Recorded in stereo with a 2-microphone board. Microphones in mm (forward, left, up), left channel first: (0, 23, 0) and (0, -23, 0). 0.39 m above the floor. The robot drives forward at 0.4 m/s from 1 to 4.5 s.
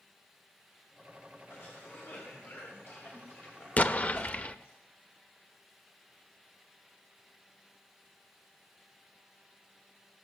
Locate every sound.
1.5 s a cough: 50° left (ahead or behind), 2.5 m
3.8 s an explosion: 35° left (ahead or behind), 0.6 m; by 4.5 s 30° left (ahead or behind), 0.6 m